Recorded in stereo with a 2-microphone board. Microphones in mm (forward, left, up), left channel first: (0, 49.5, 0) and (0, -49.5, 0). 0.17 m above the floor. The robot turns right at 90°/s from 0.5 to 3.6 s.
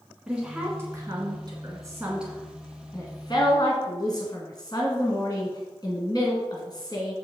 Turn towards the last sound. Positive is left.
turn(degrees=40)  # may be behind; listen again after turning